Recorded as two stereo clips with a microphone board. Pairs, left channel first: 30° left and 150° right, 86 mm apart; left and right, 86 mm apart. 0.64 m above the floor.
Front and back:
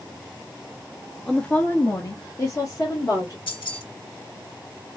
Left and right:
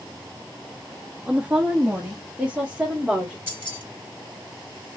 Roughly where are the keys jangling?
Ahead.